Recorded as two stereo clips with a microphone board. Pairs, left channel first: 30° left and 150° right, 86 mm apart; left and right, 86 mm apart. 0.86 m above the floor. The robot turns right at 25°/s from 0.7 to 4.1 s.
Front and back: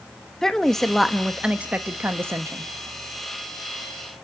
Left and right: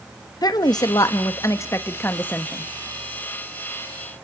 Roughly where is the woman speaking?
Behind left.